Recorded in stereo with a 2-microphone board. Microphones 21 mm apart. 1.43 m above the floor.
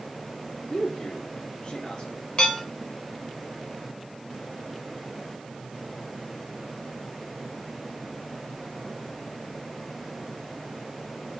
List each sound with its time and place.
0.7 s a man speaking: 40° left (ahead or behind), 4 m
2.4 s dishes clattering: 50° left (ahead or behind), 3.5 m